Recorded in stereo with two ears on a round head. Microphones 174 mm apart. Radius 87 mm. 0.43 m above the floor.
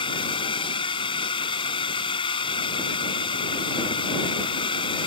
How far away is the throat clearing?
I don't hear throat clearing.